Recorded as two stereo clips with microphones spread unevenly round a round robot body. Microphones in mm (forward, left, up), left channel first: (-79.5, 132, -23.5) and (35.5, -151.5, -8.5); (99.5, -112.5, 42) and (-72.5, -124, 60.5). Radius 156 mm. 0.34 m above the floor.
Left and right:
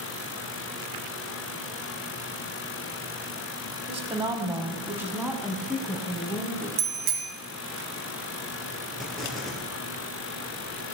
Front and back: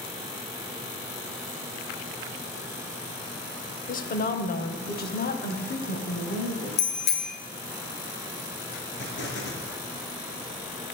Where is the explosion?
25° left, 3.5 m.